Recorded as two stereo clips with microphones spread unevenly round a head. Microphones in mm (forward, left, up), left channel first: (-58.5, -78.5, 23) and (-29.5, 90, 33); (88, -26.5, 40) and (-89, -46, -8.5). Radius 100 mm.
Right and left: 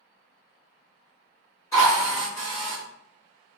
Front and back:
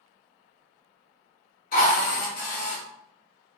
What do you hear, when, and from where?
1.7 s a drill: 25° right, 1.0 m